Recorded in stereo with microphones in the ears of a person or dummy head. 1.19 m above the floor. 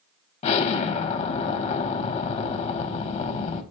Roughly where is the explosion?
Left.